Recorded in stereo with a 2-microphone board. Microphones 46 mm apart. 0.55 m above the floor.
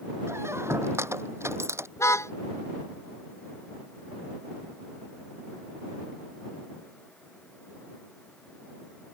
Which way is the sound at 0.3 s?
65° right (ahead or behind).